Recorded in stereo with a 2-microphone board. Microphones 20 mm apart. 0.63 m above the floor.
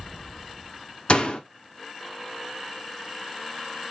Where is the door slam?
60° left (ahead or behind), 1.3 m.